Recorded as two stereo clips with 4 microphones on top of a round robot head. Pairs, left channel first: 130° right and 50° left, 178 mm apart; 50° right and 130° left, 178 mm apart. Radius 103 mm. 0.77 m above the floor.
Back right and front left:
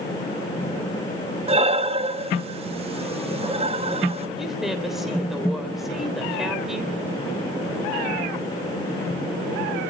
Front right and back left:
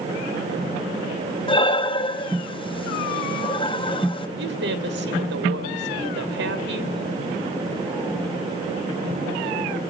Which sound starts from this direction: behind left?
A woman speaking, at 4.4 s.